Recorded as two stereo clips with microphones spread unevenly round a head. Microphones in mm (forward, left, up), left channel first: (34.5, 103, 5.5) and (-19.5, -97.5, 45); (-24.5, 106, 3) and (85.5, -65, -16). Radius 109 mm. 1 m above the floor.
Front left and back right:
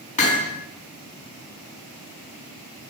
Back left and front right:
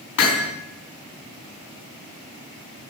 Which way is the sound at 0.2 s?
135° left.